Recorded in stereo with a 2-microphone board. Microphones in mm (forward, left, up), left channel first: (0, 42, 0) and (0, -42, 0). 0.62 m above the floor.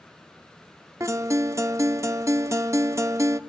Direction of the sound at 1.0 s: 35° right (ahead or behind).